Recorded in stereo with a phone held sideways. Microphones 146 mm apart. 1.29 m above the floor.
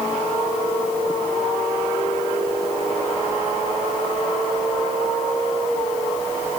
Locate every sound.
Only background noise.